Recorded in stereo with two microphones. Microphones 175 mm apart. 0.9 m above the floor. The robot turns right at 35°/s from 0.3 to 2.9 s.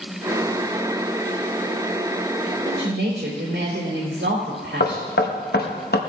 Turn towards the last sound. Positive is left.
turn(degrees=60)  # may be behind; listen again after turning